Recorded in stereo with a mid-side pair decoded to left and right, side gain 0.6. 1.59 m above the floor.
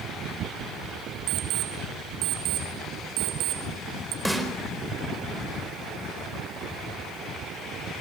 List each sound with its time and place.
1.3 s an alarm clock: 65° right, 2.5 m
4.2 s a snare drum: straight ahead, 4.5 m